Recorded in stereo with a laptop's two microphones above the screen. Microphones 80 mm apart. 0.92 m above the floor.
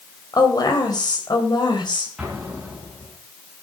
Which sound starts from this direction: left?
A woman speaking, at 0.3 s.